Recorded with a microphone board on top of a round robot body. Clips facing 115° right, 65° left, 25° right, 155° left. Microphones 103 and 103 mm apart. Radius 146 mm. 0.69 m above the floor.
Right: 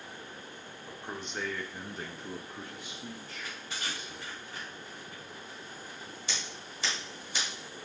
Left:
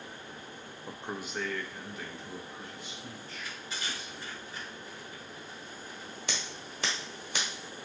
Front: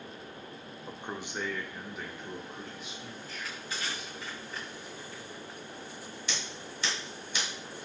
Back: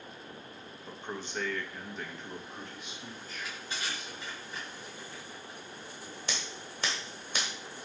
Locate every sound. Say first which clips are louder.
0.9 s a man speaking: left 2 dB, even; 40° left, 0.6 m; by 4.3 s 115° right, 1.6 m
3.3 s crushing: even, even; 140° right, 1.5 m
6.3 s scissors: left 2 dB, back 1 dB; 105° left, 0.8 m